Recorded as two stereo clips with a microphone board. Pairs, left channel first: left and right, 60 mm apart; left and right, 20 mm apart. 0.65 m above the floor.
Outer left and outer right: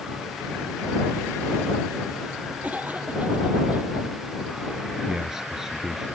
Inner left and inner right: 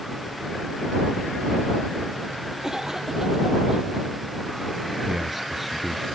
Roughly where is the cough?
Right.